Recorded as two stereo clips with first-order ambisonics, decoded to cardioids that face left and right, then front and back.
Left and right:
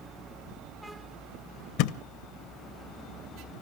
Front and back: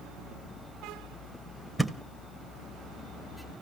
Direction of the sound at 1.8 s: 90° left.